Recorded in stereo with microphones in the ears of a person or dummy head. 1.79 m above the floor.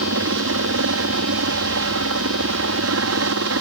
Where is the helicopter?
70° right (ahead or behind).